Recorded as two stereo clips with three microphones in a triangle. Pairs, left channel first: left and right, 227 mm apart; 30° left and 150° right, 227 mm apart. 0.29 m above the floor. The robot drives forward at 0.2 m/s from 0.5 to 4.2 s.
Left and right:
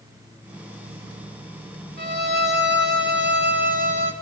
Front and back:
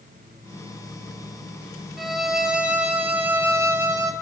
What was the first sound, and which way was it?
A violin, 60° right.